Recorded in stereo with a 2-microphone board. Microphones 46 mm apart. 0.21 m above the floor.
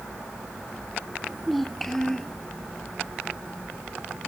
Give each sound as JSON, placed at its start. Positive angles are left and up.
{"t": 1.2, "sound": "a child speaking", "side_deg": -5}